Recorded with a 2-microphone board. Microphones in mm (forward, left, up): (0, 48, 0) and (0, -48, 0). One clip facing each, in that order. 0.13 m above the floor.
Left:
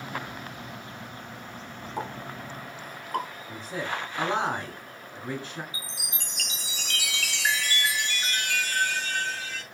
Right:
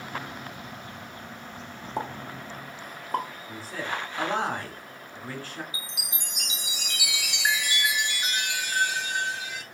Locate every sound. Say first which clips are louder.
2.0 s a pop: right 2 dB; 30° right (ahead or behind), 0.6 m
3.5 s a man speaking: left 1 dB; 20° left (ahead or behind), 1.0 m
5.7 s a chime: even; 15° right (ahead or behind), 0.7 m